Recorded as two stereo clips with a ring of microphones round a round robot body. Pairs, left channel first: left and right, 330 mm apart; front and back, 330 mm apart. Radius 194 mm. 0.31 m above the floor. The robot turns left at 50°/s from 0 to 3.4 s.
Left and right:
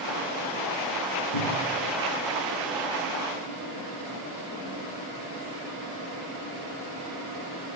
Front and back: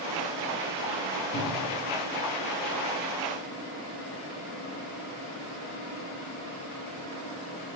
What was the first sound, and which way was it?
A cupboard door, 65° left.